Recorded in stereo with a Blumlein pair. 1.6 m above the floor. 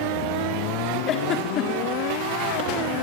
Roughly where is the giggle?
Ahead left.